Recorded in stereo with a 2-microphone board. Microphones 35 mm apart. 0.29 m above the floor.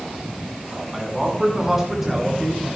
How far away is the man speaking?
About 3 m.